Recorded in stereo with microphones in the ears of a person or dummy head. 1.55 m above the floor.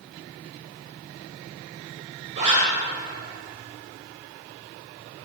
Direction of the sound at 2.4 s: 35° right (ahead or behind).